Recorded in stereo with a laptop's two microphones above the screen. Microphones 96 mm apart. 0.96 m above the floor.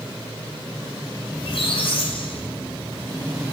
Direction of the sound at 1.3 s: 65° left (ahead or behind).